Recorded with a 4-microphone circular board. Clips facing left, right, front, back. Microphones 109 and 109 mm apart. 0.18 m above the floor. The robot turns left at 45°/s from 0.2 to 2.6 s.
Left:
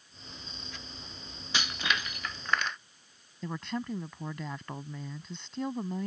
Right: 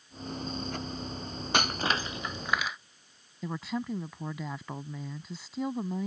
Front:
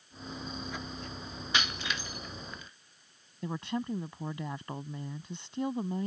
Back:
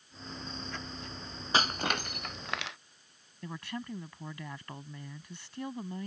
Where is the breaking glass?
125° right; by 2.8 s 175° right.